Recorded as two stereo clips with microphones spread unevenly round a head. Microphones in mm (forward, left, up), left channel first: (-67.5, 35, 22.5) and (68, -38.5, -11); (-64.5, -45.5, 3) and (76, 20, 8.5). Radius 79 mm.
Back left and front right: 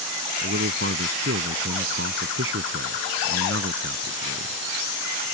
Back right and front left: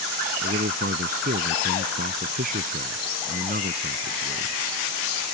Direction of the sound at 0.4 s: 10° right.